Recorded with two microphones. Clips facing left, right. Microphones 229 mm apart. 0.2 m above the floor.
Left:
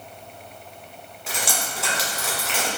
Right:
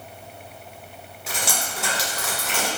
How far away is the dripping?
About 1.9 m.